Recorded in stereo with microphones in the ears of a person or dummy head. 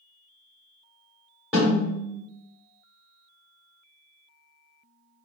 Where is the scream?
No scream in this recording.